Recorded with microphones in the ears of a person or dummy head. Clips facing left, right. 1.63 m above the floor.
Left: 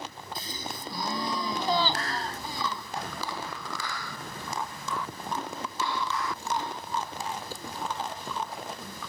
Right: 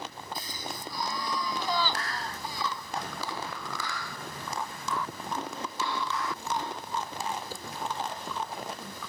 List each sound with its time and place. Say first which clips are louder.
0.3 s a gasp: left 1 dB; 25° left (ahead or behind)